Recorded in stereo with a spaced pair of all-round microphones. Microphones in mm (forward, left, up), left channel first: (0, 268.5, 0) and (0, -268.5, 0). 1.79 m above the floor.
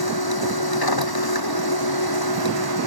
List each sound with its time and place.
0.0 s a machine running: 40° left (ahead or behind)